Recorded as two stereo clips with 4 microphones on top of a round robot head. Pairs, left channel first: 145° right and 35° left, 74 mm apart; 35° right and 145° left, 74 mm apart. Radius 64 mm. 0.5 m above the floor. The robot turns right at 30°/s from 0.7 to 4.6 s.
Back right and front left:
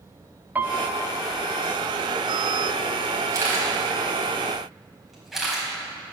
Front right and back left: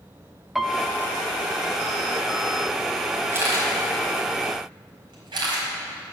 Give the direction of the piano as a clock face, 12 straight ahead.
10 o'clock.